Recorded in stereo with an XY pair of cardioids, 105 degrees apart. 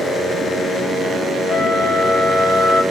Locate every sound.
1.5 s a flute: 60° left, 0.9 m